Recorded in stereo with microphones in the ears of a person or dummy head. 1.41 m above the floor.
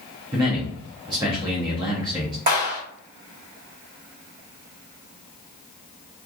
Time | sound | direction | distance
0.3 | a man speaking | 25° right (ahead or behind) | 0.7 m
2.5 | a clap | 55° right (ahead or behind) | 1.7 m